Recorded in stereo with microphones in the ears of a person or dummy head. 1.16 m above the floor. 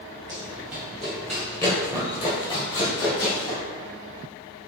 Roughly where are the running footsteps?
Centre.